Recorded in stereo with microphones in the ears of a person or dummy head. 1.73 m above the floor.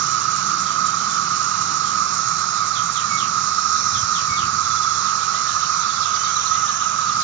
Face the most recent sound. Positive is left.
turn(degrees=-60)  # may be behind; listen again after turning